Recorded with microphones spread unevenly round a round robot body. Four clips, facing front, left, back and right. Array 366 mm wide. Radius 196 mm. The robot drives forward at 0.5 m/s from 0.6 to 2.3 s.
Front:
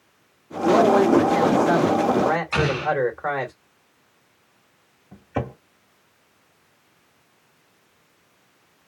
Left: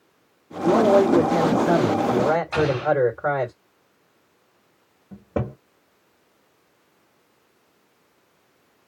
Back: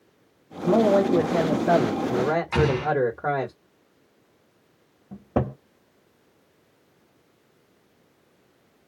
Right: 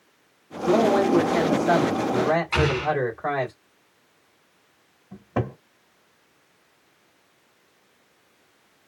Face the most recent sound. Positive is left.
turn(degrees=155)